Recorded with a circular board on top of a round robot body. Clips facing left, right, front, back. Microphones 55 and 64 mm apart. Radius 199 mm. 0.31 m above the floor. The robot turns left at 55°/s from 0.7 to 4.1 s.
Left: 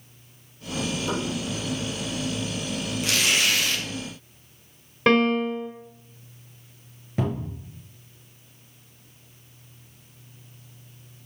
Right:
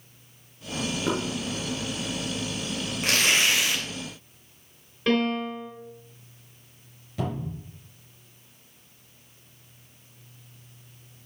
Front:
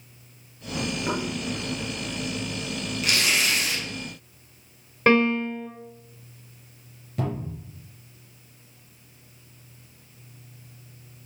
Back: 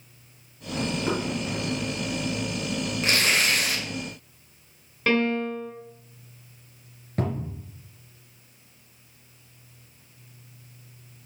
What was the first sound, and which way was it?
Knocking, 80° right.